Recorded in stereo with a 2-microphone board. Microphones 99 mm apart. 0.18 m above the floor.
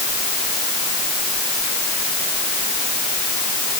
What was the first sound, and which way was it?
Only background noise.